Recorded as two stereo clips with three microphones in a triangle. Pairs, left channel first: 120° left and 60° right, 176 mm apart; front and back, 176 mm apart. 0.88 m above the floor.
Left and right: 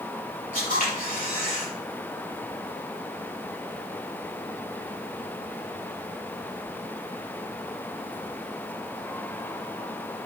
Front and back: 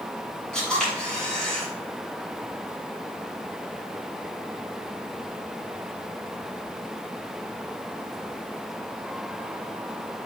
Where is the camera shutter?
85° left, 4.5 m.